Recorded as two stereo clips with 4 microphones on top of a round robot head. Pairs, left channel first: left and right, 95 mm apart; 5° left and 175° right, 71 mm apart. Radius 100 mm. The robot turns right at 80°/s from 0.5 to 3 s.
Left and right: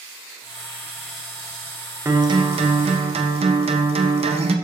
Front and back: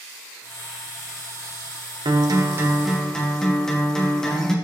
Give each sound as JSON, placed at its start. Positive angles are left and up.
{"t": 2.0, "sound": "a guitar", "azimuth_deg": -155, "distance_m": 1.0}